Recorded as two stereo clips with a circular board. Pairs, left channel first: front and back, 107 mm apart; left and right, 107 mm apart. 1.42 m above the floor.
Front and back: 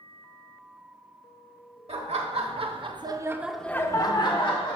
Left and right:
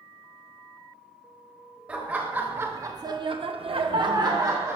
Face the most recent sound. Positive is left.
turn(degrees=-30)